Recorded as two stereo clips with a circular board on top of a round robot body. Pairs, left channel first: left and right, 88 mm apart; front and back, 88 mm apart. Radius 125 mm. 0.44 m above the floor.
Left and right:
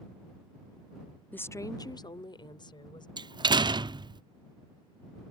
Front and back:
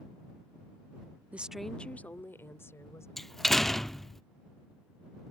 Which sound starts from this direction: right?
A door slam, at 3.2 s.